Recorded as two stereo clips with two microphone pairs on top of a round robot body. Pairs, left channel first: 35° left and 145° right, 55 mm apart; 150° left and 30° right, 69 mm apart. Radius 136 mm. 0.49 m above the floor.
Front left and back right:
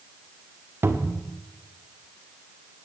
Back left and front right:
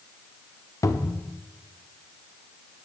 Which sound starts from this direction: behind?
A cupboard door, at 0.8 s.